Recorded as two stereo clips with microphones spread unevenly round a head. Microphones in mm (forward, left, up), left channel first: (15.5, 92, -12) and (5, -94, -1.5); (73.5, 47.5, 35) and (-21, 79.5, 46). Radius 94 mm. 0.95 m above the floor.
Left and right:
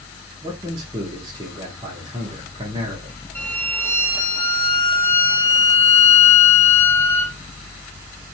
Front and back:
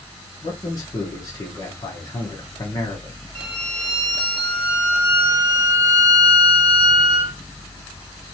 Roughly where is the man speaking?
Ahead right.